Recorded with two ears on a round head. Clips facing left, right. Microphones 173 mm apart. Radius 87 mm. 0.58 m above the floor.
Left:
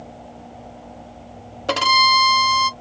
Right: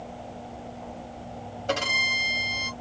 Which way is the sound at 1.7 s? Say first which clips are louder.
Left 9 dB; 65° left (ahead or behind).